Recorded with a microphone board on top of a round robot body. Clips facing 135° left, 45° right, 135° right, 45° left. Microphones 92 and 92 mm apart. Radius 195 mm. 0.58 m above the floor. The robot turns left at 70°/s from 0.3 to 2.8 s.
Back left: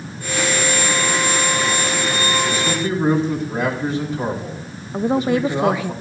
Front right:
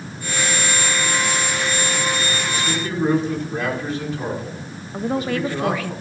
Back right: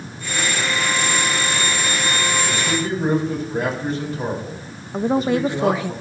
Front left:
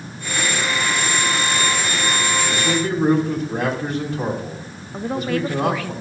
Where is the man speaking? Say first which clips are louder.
Back left 3 dB, front left 2 dB; 90° left, 5 m; by 5.9 s 65° left, 5 m.